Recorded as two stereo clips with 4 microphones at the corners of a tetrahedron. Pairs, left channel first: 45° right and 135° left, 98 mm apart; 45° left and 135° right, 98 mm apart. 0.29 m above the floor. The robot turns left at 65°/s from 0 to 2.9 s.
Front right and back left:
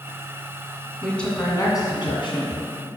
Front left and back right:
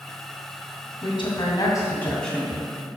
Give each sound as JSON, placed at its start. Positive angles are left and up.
{"t": 1.0, "sound": "a woman speaking", "azimuth_deg": 45, "distance_m": 2.5}